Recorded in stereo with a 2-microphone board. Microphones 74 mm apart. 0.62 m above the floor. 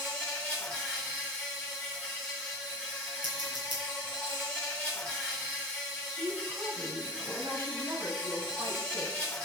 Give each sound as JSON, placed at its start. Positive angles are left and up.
{"t": 0.0, "sound": "an insect", "side_deg": 10, "distance_m": 3.0}
{"t": 3.2, "sound": "scissors", "side_deg": -75, "distance_m": 4.0}
{"t": 6.1, "sound": "a woman speaking", "side_deg": -75, "distance_m": 4.0}